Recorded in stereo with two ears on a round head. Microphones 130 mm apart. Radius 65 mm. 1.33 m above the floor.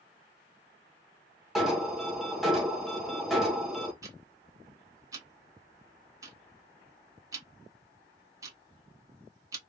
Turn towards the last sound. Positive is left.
turn(degrees=-20)  # may be behind; listen again after turning